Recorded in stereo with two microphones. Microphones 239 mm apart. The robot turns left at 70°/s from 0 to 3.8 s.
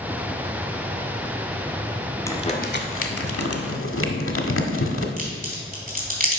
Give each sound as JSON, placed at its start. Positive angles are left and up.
{"t": 2.3, "sound": "crumpling", "side_deg": 10, "distance_m": 0.8}
{"t": 5.2, "sound": "a crack", "side_deg": -35, "distance_m": 3.0}